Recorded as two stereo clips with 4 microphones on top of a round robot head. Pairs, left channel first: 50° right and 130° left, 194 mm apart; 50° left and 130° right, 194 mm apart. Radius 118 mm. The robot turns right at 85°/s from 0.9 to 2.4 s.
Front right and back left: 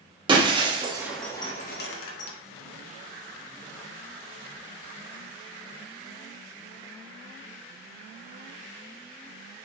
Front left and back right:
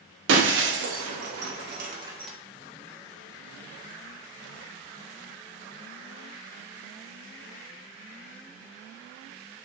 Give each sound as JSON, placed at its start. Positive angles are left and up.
{"t": 0.3, "sound": "breaking glass", "azimuth_deg": -160, "distance_m": 0.8}